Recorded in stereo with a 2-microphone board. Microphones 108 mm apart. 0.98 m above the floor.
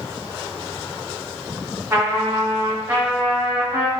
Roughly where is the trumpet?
Centre.